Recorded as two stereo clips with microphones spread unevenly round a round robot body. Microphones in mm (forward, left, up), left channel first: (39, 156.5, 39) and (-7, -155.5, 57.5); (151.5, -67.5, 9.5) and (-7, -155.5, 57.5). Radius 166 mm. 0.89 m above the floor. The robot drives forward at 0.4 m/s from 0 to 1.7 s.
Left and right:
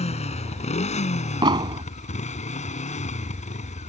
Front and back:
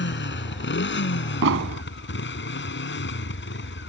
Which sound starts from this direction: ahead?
A motorcycle, at 0.0 s.